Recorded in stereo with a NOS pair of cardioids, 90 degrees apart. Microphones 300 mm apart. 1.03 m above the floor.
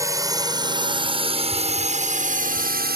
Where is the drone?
10° right; by 3.0 s 35° right.